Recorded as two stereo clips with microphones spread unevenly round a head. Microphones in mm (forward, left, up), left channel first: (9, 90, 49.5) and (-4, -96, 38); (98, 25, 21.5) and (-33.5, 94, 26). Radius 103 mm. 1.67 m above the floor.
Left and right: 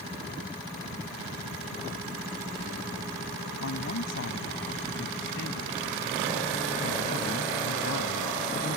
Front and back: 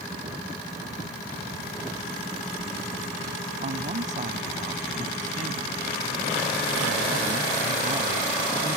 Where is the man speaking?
115° left.